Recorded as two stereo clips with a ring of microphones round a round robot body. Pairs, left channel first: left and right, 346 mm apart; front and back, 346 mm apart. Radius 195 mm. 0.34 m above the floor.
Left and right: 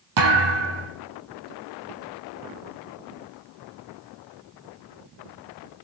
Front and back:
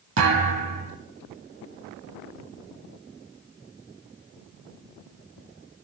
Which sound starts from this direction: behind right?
A thud, at 0.2 s.